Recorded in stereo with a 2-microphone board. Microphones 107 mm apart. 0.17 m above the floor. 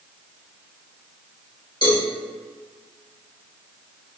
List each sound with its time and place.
1.8 s a cowbell: 45° left (ahead or behind), 2.0 m